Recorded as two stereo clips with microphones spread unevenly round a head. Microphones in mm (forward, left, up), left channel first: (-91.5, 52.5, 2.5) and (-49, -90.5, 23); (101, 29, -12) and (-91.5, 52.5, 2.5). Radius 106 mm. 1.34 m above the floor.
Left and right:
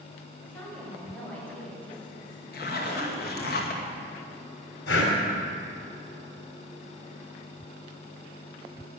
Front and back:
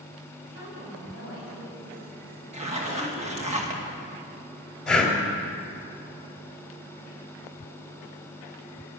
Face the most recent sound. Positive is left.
turn(degrees=80)